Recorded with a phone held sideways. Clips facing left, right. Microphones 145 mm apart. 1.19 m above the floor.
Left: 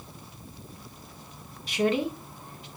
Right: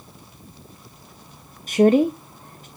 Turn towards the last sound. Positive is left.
turn(degrees=-45)  # may be behind; listen again after turning